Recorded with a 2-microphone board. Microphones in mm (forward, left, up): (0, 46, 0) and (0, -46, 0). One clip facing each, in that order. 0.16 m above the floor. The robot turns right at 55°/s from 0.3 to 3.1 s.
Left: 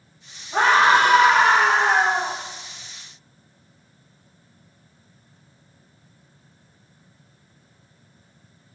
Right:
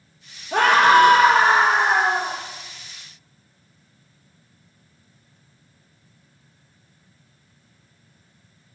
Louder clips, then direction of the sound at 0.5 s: Right 2 dB; 95° right.